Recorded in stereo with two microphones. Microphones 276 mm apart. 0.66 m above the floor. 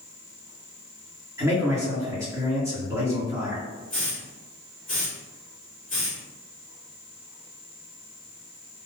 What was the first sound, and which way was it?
A man speaking, 10° right (ahead or behind).